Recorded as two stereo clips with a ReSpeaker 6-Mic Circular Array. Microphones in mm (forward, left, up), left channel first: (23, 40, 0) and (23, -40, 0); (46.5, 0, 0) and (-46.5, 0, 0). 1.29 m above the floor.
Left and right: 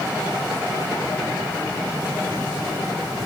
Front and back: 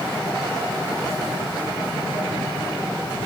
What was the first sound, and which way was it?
Only background noise.